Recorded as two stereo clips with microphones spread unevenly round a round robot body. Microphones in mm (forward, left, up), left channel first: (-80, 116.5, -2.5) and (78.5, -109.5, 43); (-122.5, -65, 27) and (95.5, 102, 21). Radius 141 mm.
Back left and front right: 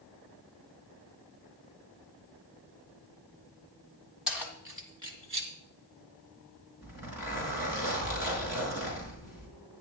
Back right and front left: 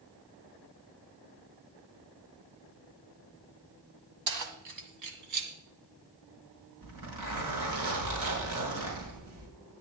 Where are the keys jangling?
35° left, 2 m; by 5.5 s 15° left, 2.5 m.